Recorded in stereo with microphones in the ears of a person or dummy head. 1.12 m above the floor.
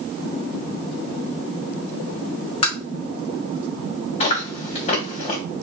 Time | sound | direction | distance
2.6 | tapping | 35° left (ahead or behind) | 2.0 m
4.2 | chewing | 40° left (ahead or behind) | 1.9 m